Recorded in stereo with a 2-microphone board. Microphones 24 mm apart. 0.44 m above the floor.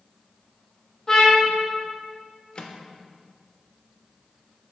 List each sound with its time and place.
1.1 s a trumpet: 25° left (ahead or behind), 2.5 m
2.5 s a microwave: 40° left (ahead or behind), 0.7 m